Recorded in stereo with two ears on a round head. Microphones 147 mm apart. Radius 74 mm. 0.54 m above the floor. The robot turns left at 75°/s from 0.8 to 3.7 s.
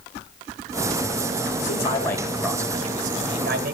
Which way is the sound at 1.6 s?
55° left.